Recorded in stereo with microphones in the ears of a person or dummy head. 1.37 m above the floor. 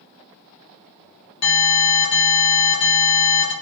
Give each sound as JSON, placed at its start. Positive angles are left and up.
{"t": 1.4, "sound": "an alarm", "side_deg": 50, "distance_m": 1.7}